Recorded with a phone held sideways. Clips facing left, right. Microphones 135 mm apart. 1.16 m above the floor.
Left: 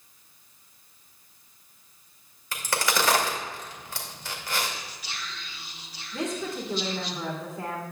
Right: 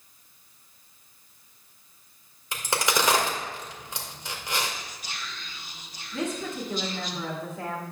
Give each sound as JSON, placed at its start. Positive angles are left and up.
{"t": 2.5, "sound": "a crack", "side_deg": -20, "distance_m": 1.9}
{"t": 4.7, "sound": "whispering", "side_deg": -45, "distance_m": 1.6}
{"t": 6.1, "sound": "a woman speaking", "side_deg": 0, "distance_m": 2.0}